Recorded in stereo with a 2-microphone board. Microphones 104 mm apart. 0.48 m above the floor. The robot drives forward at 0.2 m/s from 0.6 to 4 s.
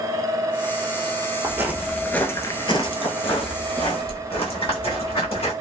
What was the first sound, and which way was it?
Footsteps, 25° right (ahead or behind).